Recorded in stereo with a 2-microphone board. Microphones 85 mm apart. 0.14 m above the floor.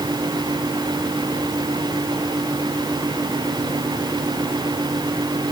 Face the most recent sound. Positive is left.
No sound to turn to.